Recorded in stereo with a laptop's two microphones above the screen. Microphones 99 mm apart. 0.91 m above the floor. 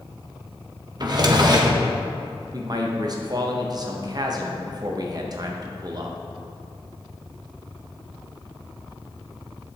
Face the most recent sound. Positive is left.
turn(degrees=-40)  # may be behind; listen again after turning